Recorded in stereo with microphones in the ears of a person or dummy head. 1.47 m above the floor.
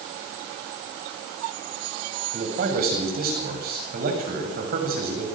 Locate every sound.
2.3 s a man speaking: 50° right (ahead or behind), 8 m